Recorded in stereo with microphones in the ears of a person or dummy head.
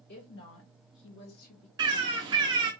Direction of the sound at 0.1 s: 50° left (ahead or behind).